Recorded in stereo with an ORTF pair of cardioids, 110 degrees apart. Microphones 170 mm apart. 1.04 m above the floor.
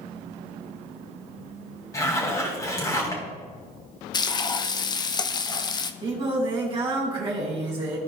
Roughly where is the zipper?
Ahead.